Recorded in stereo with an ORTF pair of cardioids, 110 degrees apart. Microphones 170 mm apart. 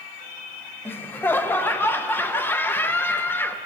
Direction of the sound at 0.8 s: 15° left.